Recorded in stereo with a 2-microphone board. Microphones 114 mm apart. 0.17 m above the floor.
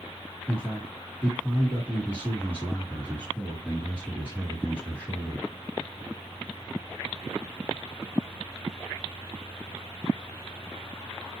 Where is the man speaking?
15° left (ahead or behind), 2 m.